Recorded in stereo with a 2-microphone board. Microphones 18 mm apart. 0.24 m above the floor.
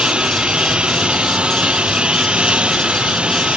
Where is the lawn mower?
75° right (ahead or behind); by 3.6 s 85° right.